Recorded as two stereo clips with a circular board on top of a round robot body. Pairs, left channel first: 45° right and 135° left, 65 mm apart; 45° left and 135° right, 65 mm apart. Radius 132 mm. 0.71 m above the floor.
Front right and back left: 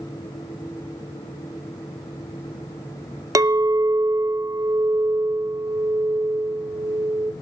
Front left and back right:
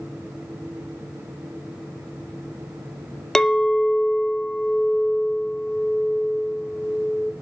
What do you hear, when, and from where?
3.4 s a clink: 125° left, 0.6 m